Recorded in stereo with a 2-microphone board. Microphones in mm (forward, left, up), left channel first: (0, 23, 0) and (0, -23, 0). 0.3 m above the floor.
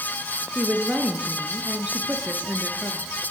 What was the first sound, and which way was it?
A woman speaking, 25° right (ahead or behind).